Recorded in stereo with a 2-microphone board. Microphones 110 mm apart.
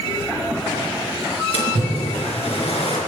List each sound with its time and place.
1.5 s a splash: 65° left (ahead or behind), 3 m